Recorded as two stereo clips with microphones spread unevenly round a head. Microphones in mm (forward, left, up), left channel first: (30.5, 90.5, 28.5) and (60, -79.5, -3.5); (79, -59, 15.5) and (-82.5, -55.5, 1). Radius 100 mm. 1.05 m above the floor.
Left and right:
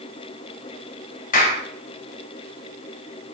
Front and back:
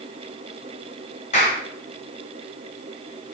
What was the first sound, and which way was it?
A clap, 60° left.